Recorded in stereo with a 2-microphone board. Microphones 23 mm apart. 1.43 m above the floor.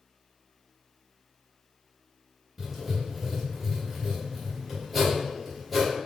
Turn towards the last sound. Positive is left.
turn(degrees=-10)  # may be behind; listen again after turning